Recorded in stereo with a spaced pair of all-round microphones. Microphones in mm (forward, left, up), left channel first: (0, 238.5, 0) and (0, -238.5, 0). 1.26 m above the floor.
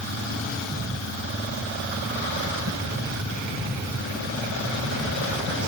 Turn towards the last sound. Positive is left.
No sound to turn to.